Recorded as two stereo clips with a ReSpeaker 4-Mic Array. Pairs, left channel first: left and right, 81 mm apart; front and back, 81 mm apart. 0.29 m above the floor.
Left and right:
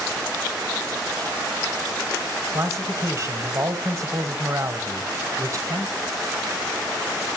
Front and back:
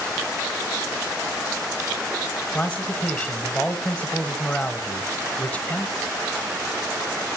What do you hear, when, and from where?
2.5 s a man speaking: 65° right, 1.2 m